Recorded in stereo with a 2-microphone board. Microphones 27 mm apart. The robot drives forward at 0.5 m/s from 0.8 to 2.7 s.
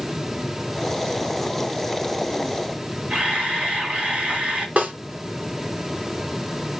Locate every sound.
3.1 s a camera shutter: 45° right (ahead or behind), 2 m
4.8 s a snare drum: 70° right (ahead or behind), 1.4 m